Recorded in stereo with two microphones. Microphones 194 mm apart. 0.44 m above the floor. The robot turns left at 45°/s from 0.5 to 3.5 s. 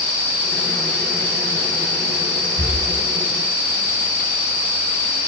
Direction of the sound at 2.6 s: 45° right (ahead or behind).